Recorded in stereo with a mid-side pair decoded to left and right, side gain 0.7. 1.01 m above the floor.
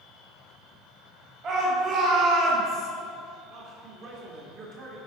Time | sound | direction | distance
1.4 | a shout | 45° right | 2 m
3.5 | a man speaking | 55° right | 2 m